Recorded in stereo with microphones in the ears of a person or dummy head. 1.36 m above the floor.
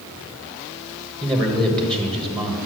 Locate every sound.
1.2 s a man speaking: 5° left (ahead or behind), 1.5 m